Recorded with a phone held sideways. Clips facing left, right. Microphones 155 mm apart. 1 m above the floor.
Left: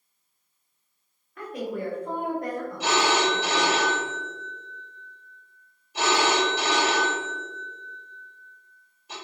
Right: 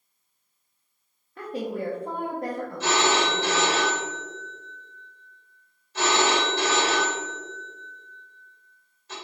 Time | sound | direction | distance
1.4 | a woman speaking | 30° right (ahead or behind) | 0.8 m
2.8 | a phone ringing | 15° left (ahead or behind) | 1.3 m